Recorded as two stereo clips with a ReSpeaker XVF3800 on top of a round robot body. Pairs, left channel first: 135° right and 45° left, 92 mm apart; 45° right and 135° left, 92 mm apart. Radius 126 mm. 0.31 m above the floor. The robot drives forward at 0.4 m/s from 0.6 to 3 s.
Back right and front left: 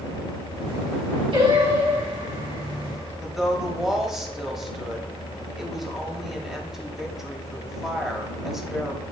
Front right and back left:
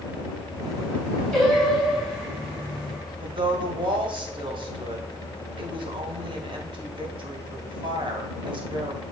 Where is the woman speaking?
130° left, 2.5 m.